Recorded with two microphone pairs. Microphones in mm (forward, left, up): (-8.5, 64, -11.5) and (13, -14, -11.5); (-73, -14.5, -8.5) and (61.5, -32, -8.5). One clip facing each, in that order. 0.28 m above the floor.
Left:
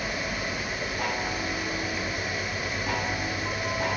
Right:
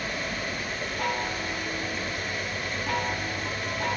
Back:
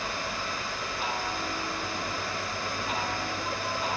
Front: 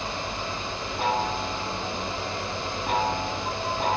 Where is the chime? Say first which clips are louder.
Right 1 dB, front 8 dB; 20° left, 2.5 m.